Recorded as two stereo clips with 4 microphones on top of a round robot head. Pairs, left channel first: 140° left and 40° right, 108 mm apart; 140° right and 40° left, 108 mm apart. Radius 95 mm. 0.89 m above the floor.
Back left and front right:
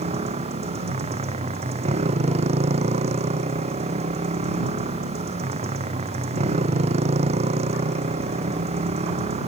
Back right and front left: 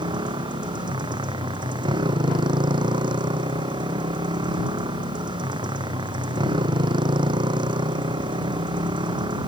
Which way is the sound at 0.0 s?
10° right.